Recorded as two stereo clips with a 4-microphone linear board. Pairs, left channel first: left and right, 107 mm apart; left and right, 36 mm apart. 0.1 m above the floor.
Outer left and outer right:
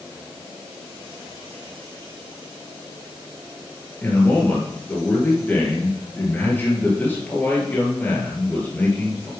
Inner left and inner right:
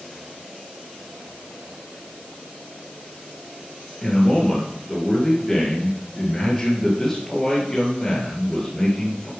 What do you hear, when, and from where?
4.0 s a man speaking: 20° left (ahead or behind), 2.5 m